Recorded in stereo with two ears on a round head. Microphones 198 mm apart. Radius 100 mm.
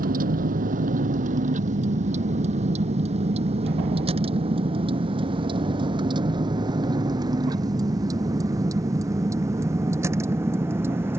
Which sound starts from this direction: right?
A vehicle, at 0.0 s.